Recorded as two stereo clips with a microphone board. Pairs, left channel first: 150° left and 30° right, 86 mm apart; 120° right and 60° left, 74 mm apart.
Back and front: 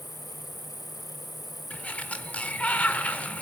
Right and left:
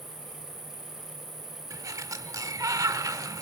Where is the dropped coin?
No dropped coin in this recording.